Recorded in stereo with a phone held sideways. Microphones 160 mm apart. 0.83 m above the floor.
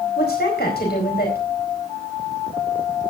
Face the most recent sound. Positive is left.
turn(degrees=80)